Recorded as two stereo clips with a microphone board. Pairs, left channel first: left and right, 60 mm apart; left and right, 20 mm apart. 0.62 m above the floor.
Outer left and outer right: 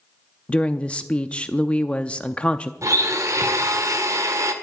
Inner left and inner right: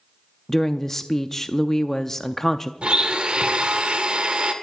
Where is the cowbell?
I don't hear a cowbell.